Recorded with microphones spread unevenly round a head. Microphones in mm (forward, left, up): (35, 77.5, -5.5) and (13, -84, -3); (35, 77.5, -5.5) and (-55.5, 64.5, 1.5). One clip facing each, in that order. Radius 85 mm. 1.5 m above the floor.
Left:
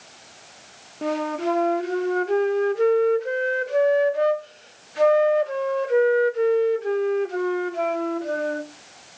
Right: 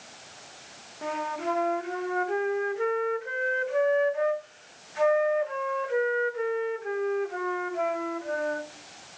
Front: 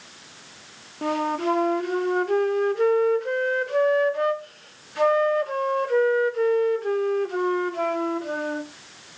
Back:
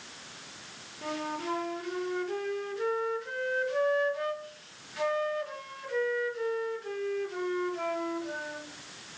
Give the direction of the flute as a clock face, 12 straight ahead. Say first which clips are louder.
Left 7 dB, front 10 dB; 11 o'clock.